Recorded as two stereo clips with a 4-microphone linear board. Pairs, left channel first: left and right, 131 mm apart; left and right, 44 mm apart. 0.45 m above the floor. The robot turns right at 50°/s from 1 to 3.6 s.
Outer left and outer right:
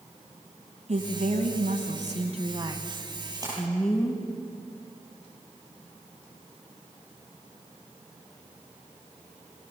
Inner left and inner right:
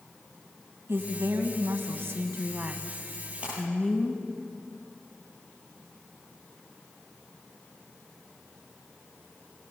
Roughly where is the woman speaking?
Behind right.